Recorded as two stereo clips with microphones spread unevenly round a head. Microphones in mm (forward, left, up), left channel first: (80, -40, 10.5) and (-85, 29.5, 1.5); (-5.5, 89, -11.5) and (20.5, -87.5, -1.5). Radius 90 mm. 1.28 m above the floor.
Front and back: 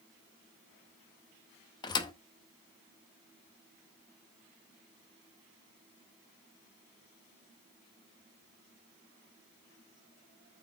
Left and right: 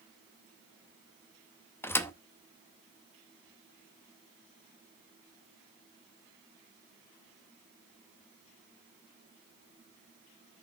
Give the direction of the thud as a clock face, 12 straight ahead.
11 o'clock.